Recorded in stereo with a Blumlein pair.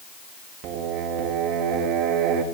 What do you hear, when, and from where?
0.6 s singing: 40° right, 1.4 m